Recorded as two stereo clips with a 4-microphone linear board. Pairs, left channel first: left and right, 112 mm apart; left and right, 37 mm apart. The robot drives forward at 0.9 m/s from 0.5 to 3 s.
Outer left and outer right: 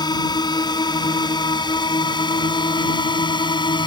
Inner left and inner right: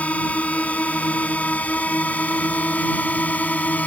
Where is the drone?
40° left (ahead or behind).